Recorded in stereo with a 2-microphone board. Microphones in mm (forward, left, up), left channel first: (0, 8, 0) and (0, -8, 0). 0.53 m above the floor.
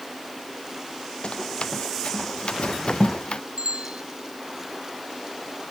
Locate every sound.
1.2 s running footsteps: 65° left (ahead or behind); by 3.4 s 70° left (ahead or behind)
3.6 s a bicycle bell: 75° right (ahead or behind)